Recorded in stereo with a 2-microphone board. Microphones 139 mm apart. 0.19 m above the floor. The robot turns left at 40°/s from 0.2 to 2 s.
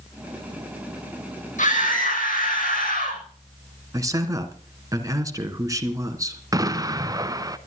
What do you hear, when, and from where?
1.6 s a scream: 65° left (ahead or behind), 8 m; by 3.2 s 80° left, 8 m
3.9 s a man speaking: 25° right (ahead or behind), 2.5 m
6.5 s an explosion: 25° right (ahead or behind), 0.8 m